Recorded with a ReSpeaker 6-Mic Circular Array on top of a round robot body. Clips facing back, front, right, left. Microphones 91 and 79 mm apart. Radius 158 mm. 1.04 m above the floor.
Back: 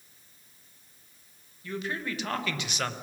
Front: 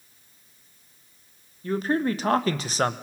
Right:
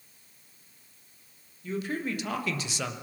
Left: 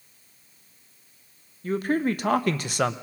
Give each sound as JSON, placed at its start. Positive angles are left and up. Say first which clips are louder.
{"t": 1.6, "sound": "a man speaking", "louder": "front 10 dB, left 8 dB", "azimuth_deg": 50, "distance_m": 1.6}